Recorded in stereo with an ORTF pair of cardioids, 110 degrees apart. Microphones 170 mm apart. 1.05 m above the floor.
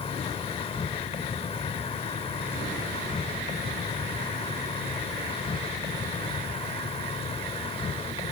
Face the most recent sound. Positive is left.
turn(degrees=30)